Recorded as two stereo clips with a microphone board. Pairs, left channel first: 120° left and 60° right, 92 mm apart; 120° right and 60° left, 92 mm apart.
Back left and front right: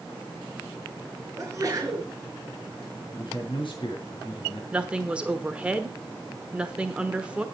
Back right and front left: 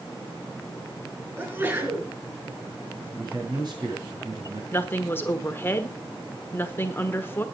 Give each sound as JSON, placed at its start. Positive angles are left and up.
{"t": 1.4, "sound": "a sneeze", "azimuth_deg": -5, "distance_m": 5.0}
{"t": 3.1, "sound": "a man speaking", "azimuth_deg": 95, "distance_m": 5.5}
{"t": 4.7, "sound": "a woman speaking", "azimuth_deg": -120, "distance_m": 1.2}